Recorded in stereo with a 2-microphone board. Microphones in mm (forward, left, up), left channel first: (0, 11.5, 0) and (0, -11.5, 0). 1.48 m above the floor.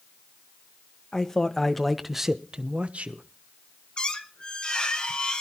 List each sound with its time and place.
1.1 s a man speaking: 25° left (ahead or behind), 1.7 m; by 3.2 s 65° right (ahead or behind), 1.2 m
4.0 s a squeak: 35° left (ahead or behind), 1.5 m